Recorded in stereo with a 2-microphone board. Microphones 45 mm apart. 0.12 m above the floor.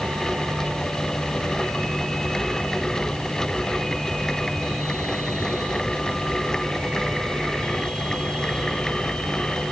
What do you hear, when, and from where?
Only background noise.